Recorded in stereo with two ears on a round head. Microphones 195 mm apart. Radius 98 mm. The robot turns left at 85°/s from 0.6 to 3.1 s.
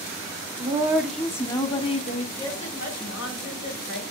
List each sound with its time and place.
0.6 s a woman speaking: 140° right, 0.8 m; by 2.3 s 80° left, 0.8 m
2.4 s a woman speaking: 165° left, 2.5 m; by 4.0 s 105° left, 2.5 m